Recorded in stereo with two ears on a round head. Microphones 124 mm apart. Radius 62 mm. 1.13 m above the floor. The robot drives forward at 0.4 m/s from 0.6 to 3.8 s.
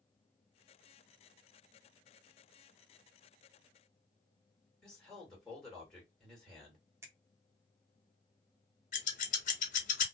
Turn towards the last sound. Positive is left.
turn(degrees=60)  # may be behind; listen again after turning